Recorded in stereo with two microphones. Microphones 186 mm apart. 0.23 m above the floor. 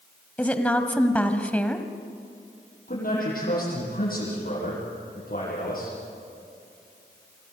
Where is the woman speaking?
10° left (ahead or behind), 1.3 m.